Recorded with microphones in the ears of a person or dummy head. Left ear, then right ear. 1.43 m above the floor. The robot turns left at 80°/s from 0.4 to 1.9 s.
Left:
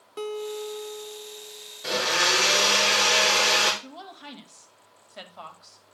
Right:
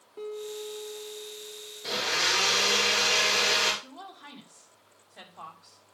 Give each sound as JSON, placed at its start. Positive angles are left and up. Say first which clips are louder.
{"t": 0.2, "sound": "a guitar", "louder": "left 5 dB", "azimuth_deg": 125, "distance_m": 0.7}
{"t": 1.8, "sound": "a blender", "louder": "left 4 dB", "side_deg": 70, "distance_m": 3.5}
{"t": 3.8, "sound": "a woman speaking", "louder": "left 3 dB", "side_deg": 40, "distance_m": 2.0}